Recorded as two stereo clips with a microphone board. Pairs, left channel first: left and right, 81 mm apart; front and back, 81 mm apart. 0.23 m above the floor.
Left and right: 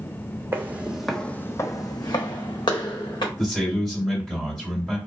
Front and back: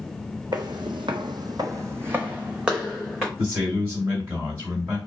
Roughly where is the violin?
No violin in this recording.